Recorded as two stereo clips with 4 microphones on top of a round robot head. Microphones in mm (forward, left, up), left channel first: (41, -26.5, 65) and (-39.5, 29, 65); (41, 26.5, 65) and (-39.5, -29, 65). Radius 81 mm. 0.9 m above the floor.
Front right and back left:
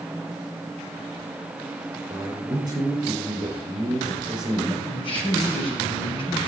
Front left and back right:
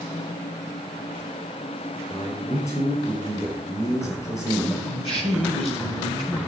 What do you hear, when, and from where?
2.1 s a man speaking: 95° left, 5.5 m
4.8 s a man speaking: 5° left, 5.5 m